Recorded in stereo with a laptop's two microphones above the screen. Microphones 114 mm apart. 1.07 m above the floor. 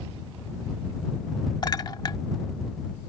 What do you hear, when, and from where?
1.6 s a clink: 40° left (ahead or behind)